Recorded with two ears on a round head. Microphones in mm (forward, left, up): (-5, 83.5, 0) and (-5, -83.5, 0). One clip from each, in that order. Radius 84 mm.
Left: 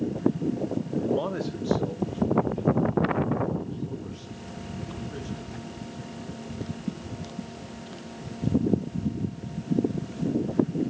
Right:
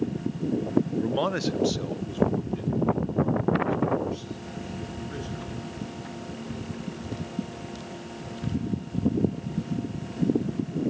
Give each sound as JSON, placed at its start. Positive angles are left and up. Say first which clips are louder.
{"t": 1.0, "sound": "a man speaking", "louder": "right 1 dB", "side_deg": -35, "distance_m": 0.6}